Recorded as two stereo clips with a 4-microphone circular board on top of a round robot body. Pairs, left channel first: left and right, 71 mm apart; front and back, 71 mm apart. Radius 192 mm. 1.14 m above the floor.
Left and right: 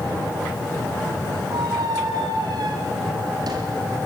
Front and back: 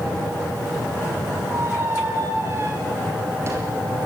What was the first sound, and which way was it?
A squeak, 125° right.